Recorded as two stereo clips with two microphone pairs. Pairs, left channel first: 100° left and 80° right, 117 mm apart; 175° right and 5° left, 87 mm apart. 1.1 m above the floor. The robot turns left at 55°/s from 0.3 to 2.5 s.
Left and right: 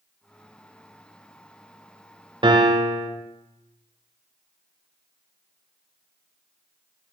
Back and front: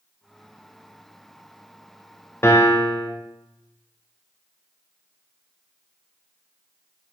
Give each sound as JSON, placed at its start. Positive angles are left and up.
{"t": 2.4, "sound": "a piano", "azimuth_deg": -120, "distance_m": 0.6}